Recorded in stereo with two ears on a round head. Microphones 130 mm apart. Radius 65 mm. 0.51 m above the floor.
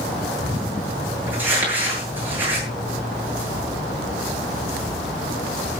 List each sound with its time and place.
1.3 s crumpling: 15° right (ahead or behind), 8.5 m